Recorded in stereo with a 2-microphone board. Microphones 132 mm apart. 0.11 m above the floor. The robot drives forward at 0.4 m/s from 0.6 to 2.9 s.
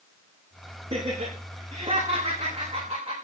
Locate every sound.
0.9 s laughter: 45° right (ahead or behind), 7.5 m; by 3.1 s 40° right (ahead or behind), 8 m